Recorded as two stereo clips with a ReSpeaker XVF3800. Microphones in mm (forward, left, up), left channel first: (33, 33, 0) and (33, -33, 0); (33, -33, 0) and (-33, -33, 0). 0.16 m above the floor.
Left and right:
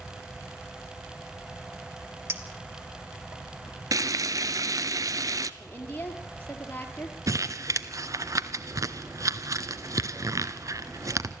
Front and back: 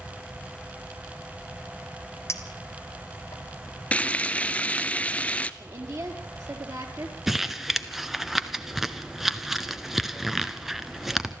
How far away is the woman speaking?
About 4 m.